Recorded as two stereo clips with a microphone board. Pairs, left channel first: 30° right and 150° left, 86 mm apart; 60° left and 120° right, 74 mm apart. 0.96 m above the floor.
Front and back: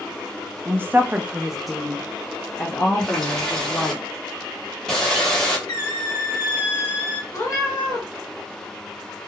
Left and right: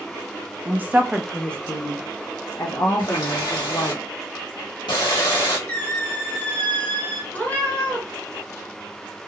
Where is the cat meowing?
Straight ahead, 1.4 m.